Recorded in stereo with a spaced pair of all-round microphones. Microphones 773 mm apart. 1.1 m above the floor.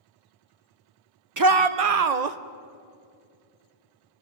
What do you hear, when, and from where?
1.4 s a shout: 25° right (ahead or behind), 0.7 m; by 2.4 s 60° right (ahead or behind), 0.9 m